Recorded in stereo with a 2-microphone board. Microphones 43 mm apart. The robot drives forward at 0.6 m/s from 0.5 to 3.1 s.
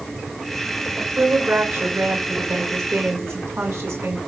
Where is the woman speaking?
80° right, 7.5 m; by 4.2 s 85° right, 7.5 m.